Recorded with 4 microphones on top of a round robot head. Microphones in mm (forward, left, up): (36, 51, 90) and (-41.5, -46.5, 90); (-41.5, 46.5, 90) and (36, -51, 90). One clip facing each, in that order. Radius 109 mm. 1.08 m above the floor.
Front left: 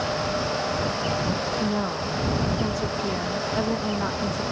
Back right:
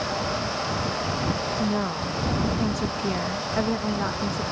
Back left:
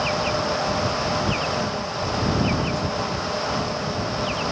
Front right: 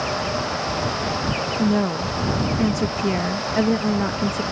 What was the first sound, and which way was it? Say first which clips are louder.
A woman speaking: even, front right 6 dB; 35° right.